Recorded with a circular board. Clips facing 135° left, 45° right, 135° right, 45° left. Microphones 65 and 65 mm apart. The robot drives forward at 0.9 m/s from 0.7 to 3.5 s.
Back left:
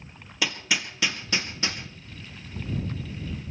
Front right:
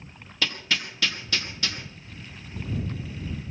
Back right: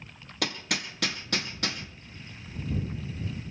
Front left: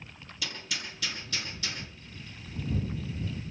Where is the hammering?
145° right, 1.9 m; by 1.8 s 160° right, 2.5 m.